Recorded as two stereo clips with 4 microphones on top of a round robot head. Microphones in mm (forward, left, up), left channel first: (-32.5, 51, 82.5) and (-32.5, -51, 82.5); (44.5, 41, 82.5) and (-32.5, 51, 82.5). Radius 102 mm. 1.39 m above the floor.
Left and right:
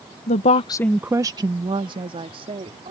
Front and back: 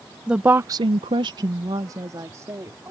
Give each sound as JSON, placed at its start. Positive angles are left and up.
{"t": 0.3, "sound": "a woman speaking", "azimuth_deg": 95}